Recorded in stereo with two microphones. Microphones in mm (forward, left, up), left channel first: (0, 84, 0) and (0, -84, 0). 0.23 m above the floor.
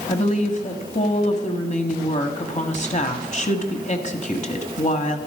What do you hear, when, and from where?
0.1 s a woman speaking: 45° left (ahead or behind), 1.3 m